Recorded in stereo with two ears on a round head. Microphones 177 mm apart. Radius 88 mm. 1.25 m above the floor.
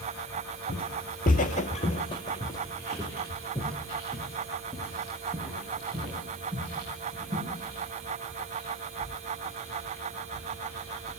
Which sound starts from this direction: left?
Footsteps, at 0.7 s.